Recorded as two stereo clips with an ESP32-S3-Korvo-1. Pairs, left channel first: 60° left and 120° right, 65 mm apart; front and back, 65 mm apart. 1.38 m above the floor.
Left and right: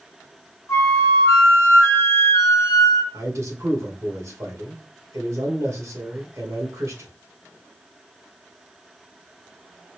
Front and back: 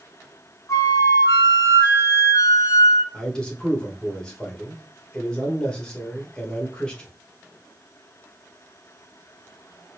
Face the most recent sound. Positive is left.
turn(degrees=-75)